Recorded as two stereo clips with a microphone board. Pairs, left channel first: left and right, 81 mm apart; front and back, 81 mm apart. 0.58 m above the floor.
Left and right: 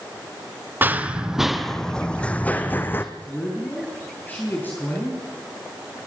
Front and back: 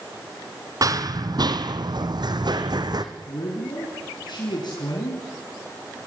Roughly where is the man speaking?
Ahead left.